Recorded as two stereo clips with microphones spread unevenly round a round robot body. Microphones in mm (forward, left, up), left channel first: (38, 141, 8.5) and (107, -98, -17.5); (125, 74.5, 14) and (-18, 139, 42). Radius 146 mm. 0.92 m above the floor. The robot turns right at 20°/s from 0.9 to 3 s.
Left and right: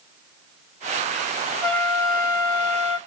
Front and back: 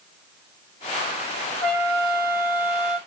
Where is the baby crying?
No baby crying in this recording.